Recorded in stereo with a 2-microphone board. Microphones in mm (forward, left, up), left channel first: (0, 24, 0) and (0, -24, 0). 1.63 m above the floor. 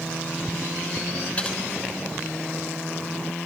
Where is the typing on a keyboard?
30° left (ahead or behind), 6 m.